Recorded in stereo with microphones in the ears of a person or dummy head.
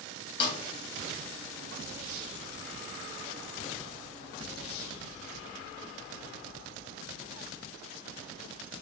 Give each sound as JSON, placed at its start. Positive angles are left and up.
{"t": 0.4, "sound": "a snare drum", "side_deg": 25, "distance_m": 0.6}